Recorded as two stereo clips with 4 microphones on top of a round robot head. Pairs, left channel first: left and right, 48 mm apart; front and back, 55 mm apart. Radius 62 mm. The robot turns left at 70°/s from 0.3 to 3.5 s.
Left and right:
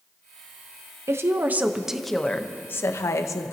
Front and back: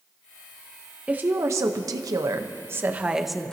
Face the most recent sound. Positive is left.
turn(degrees=75)